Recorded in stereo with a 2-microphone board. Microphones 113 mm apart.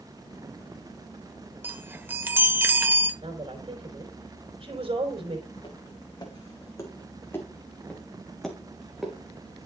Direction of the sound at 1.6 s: 15° right (ahead or behind).